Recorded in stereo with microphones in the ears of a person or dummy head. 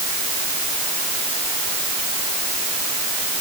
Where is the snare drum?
I don't hear a snare drum.